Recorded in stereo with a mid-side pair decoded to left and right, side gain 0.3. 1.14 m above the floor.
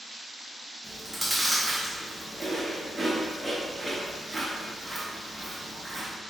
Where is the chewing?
10° right, 0.9 m.